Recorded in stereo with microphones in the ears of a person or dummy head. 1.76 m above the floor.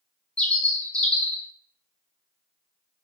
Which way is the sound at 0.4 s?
10° left (ahead or behind).